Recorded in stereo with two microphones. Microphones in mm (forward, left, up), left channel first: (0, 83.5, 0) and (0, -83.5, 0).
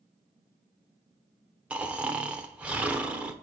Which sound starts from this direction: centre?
Snoring, at 1.7 s.